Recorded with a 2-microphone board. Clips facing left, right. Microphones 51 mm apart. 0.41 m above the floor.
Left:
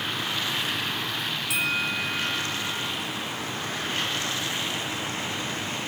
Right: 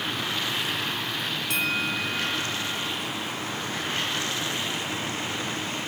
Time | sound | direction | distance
1.5 | a bell | 5° left (ahead or behind) | ?